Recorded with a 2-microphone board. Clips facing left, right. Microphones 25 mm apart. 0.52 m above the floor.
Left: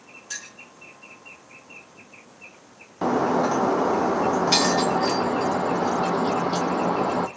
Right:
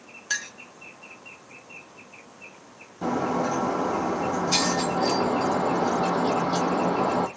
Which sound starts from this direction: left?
Breaking glass, at 3.0 s.